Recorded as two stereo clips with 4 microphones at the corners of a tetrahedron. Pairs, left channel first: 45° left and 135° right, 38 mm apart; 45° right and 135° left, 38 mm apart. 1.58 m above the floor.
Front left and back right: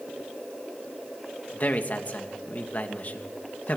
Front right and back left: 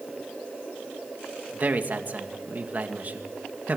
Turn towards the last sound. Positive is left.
turn(degrees=90)